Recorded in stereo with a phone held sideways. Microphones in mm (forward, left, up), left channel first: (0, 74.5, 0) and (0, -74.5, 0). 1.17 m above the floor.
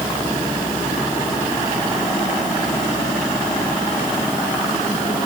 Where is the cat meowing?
No cat meowing in this recording.